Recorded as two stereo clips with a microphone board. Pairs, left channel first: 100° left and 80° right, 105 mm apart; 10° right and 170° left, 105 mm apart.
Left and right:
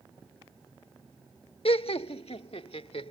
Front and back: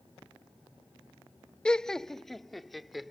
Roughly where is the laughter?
Left.